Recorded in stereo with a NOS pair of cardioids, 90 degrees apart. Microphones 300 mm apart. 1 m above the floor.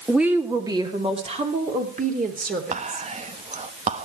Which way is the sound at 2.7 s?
25° right.